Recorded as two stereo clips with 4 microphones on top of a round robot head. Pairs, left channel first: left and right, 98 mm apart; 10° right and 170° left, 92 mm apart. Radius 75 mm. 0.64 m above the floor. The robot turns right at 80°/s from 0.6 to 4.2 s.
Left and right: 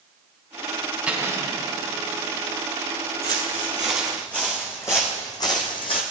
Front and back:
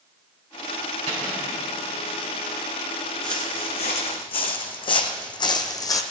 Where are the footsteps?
80° right, 2.5 m; by 6.0 s 40° left, 1.4 m.